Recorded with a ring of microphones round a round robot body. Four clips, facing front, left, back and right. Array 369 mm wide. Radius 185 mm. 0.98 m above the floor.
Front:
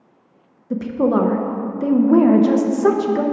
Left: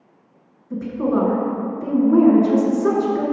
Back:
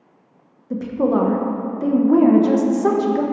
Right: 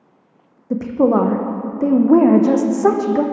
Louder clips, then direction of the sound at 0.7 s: Right 6 dB, front 1 dB; 75° right.